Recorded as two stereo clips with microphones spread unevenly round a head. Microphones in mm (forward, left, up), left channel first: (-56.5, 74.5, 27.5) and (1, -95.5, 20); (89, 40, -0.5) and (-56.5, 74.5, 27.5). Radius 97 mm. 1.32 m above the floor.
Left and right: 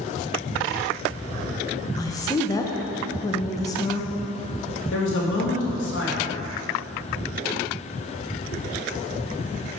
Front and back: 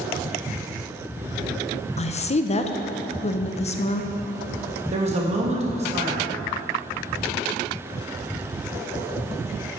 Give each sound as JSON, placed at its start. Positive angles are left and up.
{"t": 2.0, "sound": "a woman speaking", "azimuth_deg": 35, "distance_m": 0.6}
{"t": 4.9, "sound": "a man speaking", "azimuth_deg": 125, "distance_m": 1.5}